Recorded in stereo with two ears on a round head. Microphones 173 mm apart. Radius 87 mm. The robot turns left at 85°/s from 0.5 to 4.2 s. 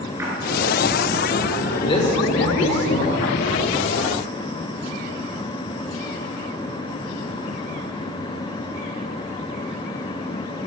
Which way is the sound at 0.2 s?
15° right (ahead or behind).